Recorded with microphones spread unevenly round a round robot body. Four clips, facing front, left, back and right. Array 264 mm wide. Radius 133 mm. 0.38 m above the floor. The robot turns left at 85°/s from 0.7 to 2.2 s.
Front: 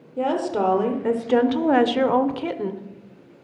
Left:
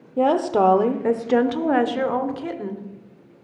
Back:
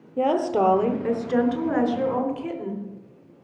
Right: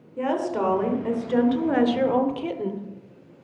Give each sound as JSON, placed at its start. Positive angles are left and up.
{"t": 0.2, "sound": "a woman speaking", "azimuth_deg": 100, "distance_m": 1.0}